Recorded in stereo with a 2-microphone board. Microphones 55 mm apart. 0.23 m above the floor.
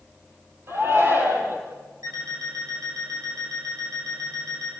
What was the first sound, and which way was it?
A shout, 45° right (ahead or behind).